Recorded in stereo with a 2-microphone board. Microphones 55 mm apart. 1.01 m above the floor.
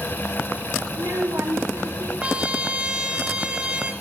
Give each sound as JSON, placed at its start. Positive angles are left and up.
{"t": 0.9, "sound": "a child speaking", "side_deg": -60, "distance_m": 1.9}
{"t": 2.2, "sound": "a trumpet", "side_deg": -20, "distance_m": 1.6}